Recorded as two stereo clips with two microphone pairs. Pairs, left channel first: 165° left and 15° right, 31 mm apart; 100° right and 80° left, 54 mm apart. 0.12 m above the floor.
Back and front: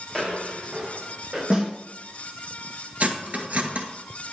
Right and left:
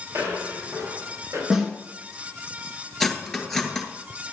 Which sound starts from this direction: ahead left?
Footsteps, at 0.1 s.